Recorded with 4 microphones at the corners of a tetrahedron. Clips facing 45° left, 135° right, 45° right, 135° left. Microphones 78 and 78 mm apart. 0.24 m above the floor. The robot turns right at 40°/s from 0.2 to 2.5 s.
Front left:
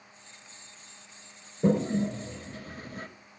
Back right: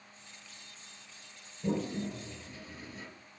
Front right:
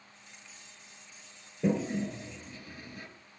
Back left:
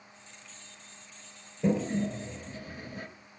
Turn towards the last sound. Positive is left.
turn(degrees=75)